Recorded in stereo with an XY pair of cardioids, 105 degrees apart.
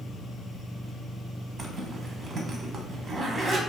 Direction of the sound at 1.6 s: 35° right.